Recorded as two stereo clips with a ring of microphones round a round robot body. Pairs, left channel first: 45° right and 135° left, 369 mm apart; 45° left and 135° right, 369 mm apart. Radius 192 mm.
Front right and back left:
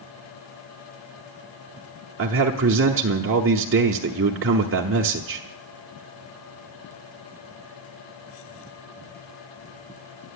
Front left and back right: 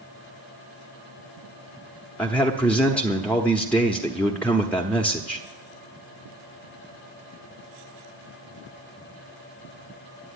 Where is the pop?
I don't hear a pop.